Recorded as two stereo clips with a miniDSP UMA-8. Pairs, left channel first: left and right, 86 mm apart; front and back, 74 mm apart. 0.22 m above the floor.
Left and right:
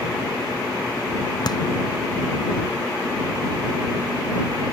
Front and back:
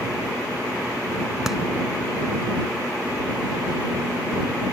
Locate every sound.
1.5 s a clap: 95° left